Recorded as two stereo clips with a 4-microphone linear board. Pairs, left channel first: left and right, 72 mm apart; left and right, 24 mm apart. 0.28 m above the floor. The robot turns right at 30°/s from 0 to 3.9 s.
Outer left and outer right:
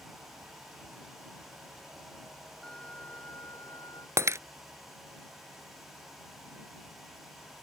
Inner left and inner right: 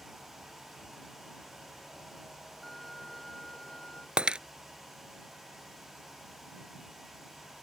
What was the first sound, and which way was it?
A violin, 10° left.